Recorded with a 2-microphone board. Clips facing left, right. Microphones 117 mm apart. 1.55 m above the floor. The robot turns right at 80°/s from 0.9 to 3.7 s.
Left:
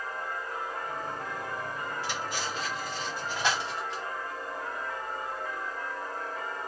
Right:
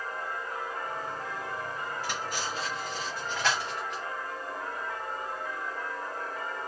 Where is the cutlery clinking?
50° right (ahead or behind), 1.1 m; by 4.0 s 30° left (ahead or behind), 1.1 m.